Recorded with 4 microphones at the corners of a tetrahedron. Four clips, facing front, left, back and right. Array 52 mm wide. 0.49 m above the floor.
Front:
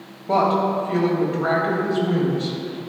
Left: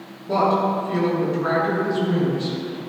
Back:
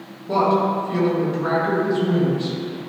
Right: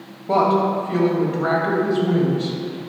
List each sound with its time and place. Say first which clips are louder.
0.3 s a woman speaking: right 2 dB, even; 50° right, 3 m